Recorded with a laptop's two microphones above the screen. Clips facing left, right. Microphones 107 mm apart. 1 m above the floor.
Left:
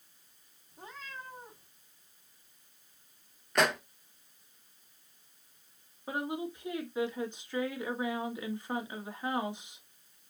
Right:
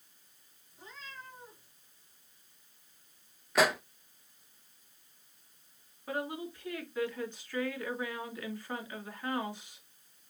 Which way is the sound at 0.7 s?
60° left (ahead or behind).